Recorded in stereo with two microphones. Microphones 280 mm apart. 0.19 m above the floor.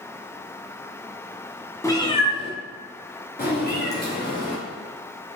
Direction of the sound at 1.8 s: 10° left (ahead or behind).